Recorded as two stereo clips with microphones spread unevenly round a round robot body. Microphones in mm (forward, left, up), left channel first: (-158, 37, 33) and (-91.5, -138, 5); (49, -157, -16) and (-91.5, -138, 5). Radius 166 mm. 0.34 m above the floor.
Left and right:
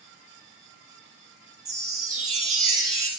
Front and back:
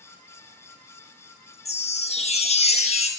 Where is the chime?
55° right, 1.2 m.